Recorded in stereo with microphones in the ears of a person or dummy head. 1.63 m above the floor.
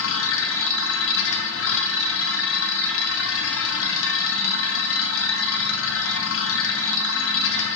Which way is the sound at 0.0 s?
85° left.